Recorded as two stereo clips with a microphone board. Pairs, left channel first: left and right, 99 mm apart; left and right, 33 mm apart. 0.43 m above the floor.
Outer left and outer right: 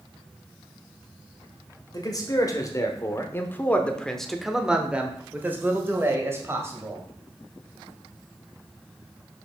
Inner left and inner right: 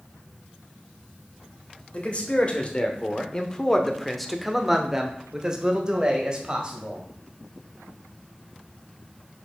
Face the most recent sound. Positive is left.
turn(degrees=-30)  # may be behind; listen again after turning